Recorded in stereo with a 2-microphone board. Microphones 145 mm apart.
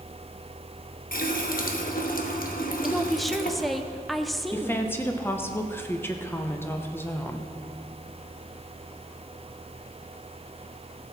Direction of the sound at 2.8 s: Centre (ahead or behind).